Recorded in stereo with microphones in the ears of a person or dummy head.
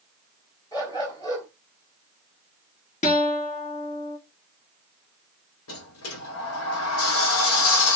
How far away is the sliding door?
About 1.0 m.